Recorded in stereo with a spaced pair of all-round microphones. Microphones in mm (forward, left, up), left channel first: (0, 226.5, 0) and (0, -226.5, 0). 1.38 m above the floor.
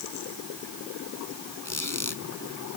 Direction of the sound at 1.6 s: 40° left (ahead or behind).